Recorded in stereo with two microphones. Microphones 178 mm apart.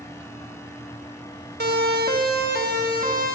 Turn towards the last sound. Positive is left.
turn(degrees=-55)  # may be behind; listen again after turning